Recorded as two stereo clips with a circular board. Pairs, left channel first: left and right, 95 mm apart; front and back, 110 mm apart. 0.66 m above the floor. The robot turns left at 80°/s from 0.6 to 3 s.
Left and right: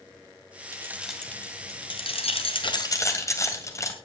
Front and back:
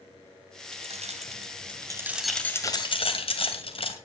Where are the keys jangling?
145° right, 2.5 m; by 3.9 s 30° left, 2.5 m.